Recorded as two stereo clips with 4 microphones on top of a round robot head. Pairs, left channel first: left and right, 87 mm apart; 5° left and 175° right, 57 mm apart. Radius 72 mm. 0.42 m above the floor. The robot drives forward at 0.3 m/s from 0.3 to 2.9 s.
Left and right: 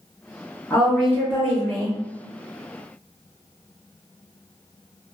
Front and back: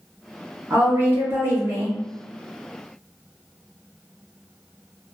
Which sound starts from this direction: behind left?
A woman speaking, at 0.7 s.